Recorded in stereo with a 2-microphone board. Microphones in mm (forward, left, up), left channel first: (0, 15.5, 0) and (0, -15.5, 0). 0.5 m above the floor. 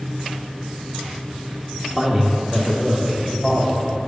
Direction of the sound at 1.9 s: 20° right (ahead or behind).